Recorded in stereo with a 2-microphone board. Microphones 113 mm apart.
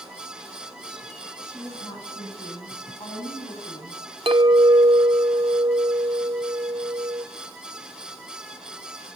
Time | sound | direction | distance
1.4 | a woman speaking | 40° left (ahead or behind) | 9.5 m
4.3 | a clink | 50° right (ahead or behind) | 1.0 m